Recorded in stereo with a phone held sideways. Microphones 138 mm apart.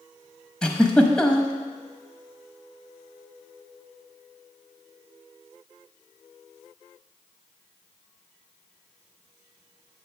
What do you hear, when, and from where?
0.6 s a giggle: 5° left (ahead or behind), 0.9 m